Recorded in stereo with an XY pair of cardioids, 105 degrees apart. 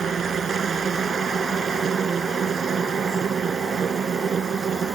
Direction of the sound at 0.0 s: 45° right.